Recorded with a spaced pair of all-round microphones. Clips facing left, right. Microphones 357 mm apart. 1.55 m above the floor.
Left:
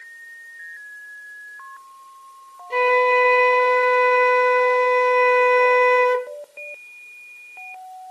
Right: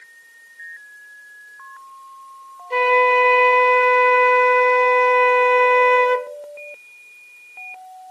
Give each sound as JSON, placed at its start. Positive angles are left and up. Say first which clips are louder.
{"t": 2.7, "sound": "a flute", "louder": "even", "side_deg": 60, "distance_m": 1.2}